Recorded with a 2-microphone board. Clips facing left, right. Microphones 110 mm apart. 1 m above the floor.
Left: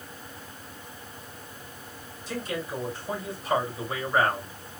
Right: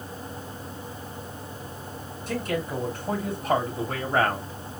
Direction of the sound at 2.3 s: 55° right (ahead or behind).